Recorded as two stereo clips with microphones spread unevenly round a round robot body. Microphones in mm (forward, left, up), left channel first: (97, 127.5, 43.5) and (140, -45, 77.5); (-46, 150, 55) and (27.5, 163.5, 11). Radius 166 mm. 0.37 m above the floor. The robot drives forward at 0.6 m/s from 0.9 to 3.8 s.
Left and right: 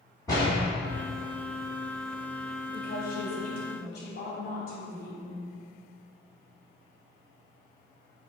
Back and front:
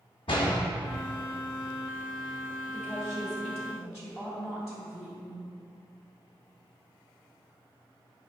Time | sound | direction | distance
0.3 | a door slam | 175° left | 2.0 m
2.7 | a woman speaking | 100° left | 2 m